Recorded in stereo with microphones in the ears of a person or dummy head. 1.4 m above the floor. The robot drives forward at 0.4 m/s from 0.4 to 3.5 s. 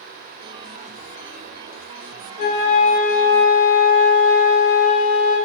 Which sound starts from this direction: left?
A flute, at 2.4 s.